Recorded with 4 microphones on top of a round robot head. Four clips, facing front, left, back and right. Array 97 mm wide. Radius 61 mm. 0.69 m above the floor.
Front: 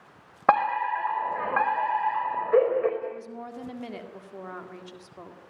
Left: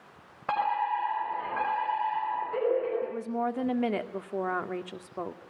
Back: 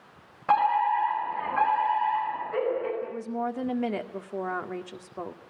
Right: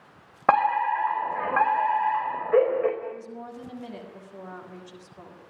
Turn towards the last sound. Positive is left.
turn(degrees=125)